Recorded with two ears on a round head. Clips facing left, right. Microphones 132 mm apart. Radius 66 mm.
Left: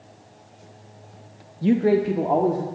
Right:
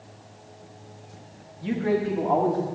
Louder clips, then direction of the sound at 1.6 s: Left 6 dB; 45° left (ahead or behind).